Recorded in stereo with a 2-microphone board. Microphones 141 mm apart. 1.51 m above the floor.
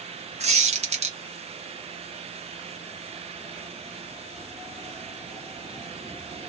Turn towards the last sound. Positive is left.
turn(degrees=-50)  # may be behind; listen again after turning